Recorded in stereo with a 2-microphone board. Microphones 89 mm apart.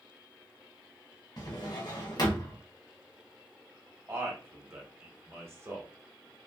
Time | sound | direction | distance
1.4 | a drawer | 55° left (ahead or behind) | 1.0 m
4.1 | a man speaking | 30° right (ahead or behind) | 1.2 m